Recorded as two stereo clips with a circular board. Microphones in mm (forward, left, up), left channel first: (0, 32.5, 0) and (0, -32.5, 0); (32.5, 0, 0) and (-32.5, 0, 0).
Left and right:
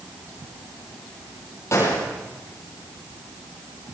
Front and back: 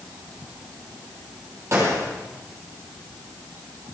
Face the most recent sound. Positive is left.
turn(degrees=135)